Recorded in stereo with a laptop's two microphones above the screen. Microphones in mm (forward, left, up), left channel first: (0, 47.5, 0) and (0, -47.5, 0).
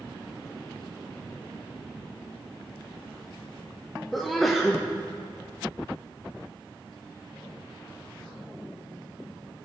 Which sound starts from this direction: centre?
A sneeze, at 4.1 s.